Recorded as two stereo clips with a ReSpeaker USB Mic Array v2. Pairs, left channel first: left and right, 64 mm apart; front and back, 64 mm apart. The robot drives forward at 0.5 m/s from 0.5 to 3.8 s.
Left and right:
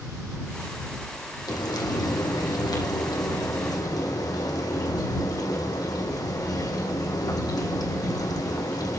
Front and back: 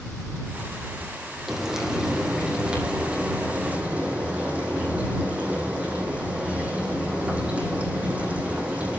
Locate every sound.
1.5 s frying: 95° left, 4 m; by 9.0 s 110° left, 4 m